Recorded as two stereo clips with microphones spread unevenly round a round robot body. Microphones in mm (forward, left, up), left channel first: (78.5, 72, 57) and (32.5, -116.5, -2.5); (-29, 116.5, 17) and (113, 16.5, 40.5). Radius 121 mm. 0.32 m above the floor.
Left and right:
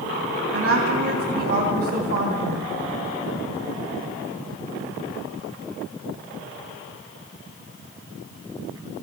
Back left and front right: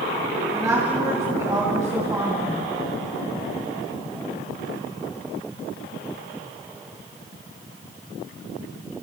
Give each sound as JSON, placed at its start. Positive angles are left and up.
{"t": 0.5, "sound": "a woman speaking", "azimuth_deg": -115, "distance_m": 2.5}